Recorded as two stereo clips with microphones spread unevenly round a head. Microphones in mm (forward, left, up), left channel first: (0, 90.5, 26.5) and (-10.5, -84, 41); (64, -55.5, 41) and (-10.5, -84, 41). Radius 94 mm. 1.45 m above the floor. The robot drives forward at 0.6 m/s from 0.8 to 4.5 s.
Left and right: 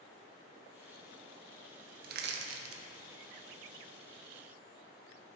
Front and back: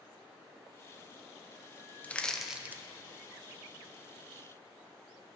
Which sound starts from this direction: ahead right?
Crushing, at 2.0 s.